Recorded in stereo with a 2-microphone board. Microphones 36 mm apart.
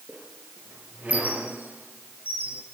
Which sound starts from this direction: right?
A squeak, at 0.1 s.